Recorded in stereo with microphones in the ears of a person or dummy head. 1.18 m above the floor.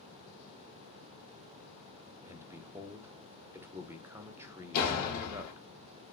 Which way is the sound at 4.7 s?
45° left (ahead or behind).